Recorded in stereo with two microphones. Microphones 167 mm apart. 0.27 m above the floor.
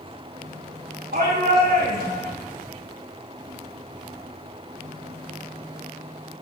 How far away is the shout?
About 8.5 m.